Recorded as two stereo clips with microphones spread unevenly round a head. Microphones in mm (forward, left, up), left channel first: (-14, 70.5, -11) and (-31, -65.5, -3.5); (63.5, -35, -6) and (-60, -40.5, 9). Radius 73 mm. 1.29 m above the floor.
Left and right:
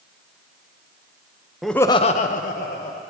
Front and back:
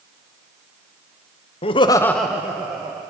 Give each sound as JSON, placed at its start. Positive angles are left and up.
{"t": 1.6, "sound": "laughter", "azimuth_deg": -10, "distance_m": 0.8}